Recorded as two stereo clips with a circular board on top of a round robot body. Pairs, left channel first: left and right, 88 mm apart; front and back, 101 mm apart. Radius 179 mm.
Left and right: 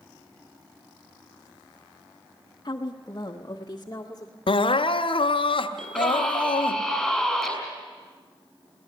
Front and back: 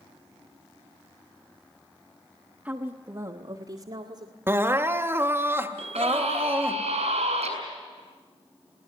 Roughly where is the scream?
Behind.